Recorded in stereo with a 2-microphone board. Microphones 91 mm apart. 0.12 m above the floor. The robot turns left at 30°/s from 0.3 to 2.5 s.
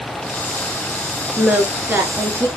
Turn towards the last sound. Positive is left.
turn(degrees=-45)